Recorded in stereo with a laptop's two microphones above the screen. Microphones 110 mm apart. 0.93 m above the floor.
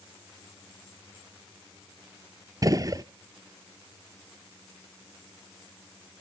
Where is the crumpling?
No crumpling in this recording.